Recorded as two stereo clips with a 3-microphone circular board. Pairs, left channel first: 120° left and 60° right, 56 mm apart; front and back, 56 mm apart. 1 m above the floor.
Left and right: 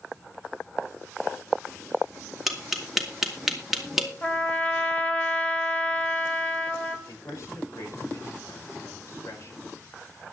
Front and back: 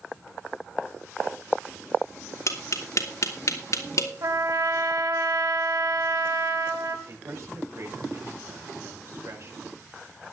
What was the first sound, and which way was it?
Tapping, 25° left.